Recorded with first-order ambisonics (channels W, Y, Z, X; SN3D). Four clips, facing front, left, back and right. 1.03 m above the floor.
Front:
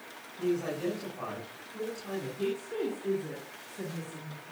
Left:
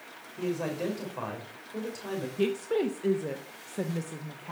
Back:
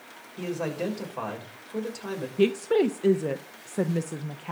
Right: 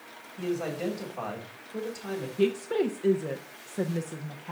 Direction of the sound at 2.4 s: 175° right.